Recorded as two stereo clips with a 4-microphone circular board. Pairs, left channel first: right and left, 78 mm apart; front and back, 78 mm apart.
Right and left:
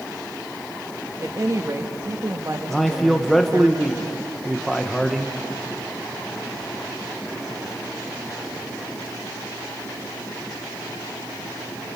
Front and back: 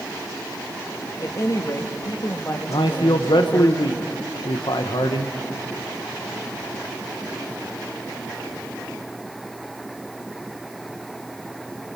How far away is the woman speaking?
About 1.7 m.